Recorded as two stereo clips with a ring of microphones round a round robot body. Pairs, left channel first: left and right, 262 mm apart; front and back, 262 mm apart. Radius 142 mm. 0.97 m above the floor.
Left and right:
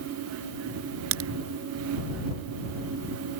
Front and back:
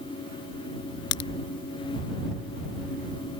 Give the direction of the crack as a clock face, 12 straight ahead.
1 o'clock.